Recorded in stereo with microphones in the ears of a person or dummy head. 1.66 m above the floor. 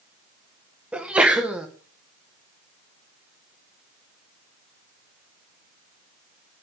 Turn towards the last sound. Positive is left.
turn(degrees=-5)  # may be behind; listen again after turning